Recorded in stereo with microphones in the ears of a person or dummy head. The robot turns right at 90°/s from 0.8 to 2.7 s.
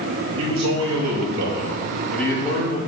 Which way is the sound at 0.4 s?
120° right.